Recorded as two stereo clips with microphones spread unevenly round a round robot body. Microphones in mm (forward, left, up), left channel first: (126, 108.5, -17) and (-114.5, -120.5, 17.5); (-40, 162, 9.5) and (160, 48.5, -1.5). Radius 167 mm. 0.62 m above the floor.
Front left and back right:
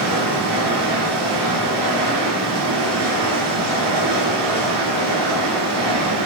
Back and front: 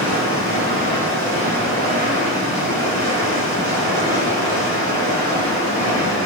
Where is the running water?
135° right, 2 m.